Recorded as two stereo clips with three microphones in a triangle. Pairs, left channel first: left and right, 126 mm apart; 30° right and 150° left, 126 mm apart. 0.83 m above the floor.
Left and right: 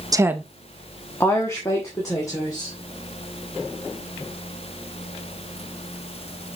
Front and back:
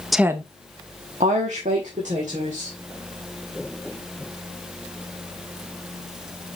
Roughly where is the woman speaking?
Behind right.